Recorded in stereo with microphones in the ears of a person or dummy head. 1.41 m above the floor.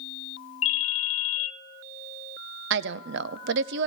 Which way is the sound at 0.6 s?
40° left (ahead or behind).